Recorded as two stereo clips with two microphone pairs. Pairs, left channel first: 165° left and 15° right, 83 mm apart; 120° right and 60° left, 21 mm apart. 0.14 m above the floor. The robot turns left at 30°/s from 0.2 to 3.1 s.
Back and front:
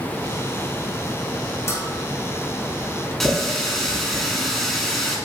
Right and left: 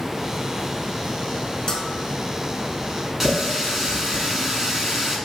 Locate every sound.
1.7 s a bell: 160° right, 0.8 m; by 1.9 s 170° right, 0.8 m
3.2 s a running tap: 75° left, 0.9 m